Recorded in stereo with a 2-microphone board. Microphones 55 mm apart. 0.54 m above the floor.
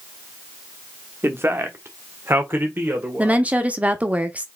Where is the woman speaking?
25° right (ahead or behind), 0.8 m.